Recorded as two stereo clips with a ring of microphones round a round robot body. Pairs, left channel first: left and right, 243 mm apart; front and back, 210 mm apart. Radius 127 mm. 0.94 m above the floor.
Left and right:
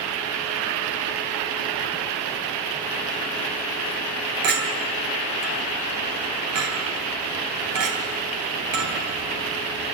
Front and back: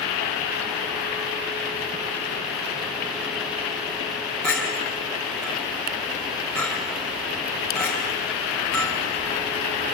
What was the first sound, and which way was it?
A clink, 90° right.